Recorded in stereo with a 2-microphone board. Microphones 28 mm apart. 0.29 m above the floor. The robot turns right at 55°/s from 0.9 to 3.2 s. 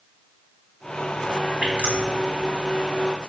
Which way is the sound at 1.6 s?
55° right (ahead or behind).